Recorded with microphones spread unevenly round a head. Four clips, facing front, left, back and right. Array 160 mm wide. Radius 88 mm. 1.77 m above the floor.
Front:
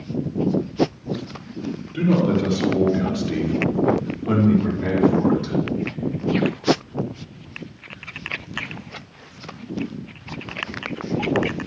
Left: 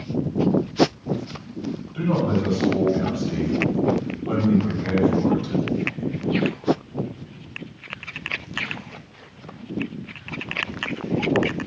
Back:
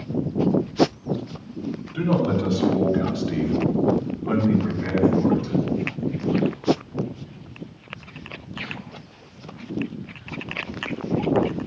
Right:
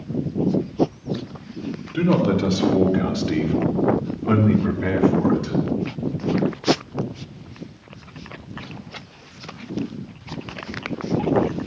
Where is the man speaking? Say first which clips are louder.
Right 4 dB, front 3 dB; 90° right, 7.5 m; by 5.5 s 45° right, 4.5 m.